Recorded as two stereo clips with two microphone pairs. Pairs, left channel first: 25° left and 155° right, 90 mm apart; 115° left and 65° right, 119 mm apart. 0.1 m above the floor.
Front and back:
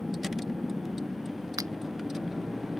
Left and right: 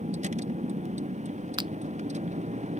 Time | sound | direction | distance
0.0 | a vehicle | 65° right | ?
1.6 | a finger snap | 110° right | ?